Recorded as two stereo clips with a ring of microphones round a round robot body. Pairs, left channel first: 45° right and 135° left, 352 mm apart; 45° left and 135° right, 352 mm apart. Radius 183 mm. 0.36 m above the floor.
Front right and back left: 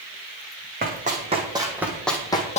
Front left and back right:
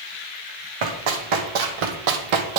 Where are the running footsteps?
155° right, 1.7 m; by 2.6 s 115° right, 1.1 m.